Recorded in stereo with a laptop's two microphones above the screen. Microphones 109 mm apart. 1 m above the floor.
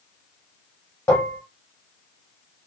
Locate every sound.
1.1 s dishes clattering: 25° left (ahead or behind), 1.4 m